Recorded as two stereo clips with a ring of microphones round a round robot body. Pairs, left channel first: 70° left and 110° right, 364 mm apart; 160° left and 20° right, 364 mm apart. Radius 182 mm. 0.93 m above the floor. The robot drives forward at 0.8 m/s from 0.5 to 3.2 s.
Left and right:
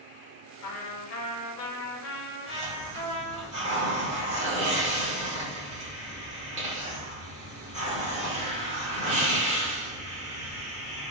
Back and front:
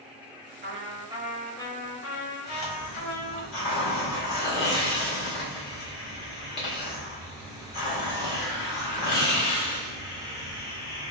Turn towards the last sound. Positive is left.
turn(degrees=175)